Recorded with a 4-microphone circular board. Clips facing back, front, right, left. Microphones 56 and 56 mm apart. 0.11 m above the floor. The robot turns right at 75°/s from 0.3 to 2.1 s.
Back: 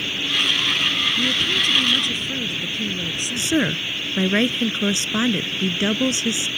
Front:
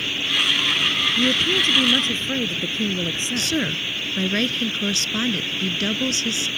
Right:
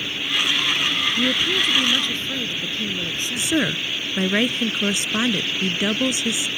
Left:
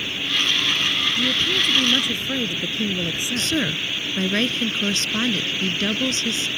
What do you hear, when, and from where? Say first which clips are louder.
1.2 s a woman speaking: front 2 dB, right 1 dB; 40° right; by 3.5 s 30° left
3.4 s a woman speaking: back 5 dB, right 3 dB; 145° right